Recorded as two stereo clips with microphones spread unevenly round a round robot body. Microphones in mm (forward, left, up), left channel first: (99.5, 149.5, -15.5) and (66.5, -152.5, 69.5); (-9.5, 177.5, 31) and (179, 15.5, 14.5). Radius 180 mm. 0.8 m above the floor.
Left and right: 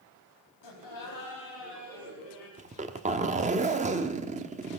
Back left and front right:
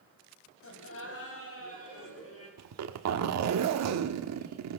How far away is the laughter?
About 4.5 m.